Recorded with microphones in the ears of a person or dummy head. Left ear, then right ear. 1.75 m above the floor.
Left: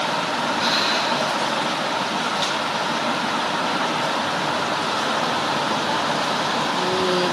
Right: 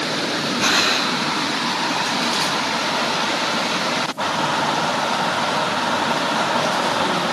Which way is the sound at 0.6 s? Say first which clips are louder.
Right 4 dB; 20° right (ahead or behind).